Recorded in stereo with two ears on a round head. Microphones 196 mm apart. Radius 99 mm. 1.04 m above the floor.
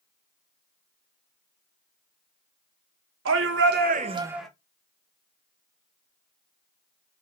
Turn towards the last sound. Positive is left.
turn(degrees=5)  # may be behind; listen again after turning